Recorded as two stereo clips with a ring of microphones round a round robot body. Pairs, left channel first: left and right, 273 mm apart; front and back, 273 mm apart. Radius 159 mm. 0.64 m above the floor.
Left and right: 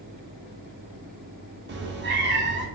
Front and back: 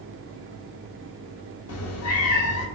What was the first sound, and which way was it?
A cat meowing, 35° right.